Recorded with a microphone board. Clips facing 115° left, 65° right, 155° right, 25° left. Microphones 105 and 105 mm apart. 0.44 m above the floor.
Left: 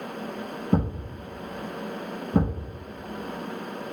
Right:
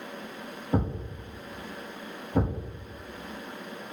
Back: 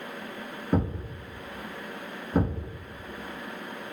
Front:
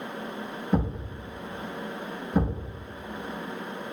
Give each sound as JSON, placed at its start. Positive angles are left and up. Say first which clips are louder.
{"t": 0.7, "sound": "a thud", "louder": "left 3 dB, back 1 dB", "azimuth_deg": 130, "distance_m": 1.5}